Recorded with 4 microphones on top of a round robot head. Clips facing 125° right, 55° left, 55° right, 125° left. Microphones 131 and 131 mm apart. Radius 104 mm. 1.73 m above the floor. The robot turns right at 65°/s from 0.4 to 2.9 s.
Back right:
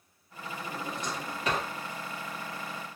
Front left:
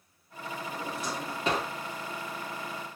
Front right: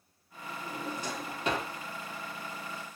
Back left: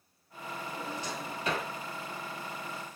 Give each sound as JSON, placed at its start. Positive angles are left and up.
{"t": 0.7, "sound": "a drawer", "azimuth_deg": -50, "distance_m": 0.9}